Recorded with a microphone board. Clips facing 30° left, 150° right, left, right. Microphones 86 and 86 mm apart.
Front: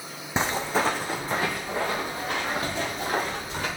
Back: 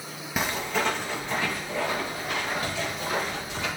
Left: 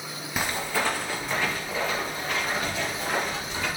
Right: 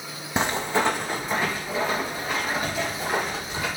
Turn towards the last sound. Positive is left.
turn(degrees=-10)